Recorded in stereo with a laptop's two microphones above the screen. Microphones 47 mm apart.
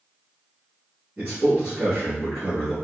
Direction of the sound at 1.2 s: 35° right (ahead or behind).